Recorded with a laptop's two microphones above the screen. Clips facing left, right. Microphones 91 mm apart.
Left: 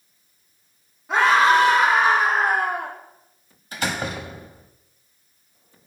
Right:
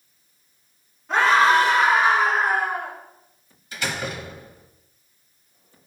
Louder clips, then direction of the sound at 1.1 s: Left 1 dB; 10° left (ahead or behind).